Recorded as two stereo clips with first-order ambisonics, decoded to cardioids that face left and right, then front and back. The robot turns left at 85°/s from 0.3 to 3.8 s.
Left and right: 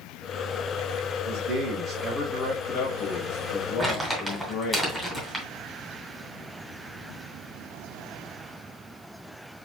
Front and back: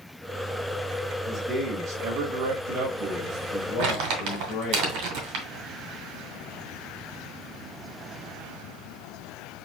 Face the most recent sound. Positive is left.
turn(degrees=175)